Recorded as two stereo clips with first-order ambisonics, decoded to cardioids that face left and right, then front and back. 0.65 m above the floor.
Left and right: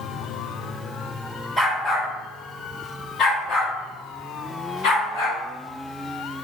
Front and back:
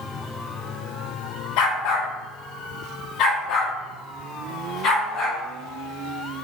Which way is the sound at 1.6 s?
10° left.